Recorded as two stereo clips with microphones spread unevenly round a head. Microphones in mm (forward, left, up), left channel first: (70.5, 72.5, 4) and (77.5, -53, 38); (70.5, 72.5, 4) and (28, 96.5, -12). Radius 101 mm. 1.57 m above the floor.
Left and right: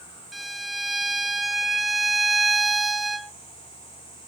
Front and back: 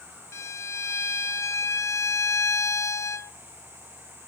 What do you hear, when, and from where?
0.3 s a violin: 5° left, 0.8 m